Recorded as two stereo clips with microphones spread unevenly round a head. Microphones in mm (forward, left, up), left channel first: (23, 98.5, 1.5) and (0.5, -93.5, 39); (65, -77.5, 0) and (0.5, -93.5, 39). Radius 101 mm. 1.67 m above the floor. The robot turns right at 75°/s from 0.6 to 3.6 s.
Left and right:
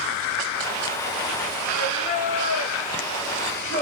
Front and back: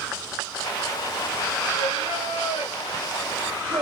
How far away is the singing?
About 2.5 m.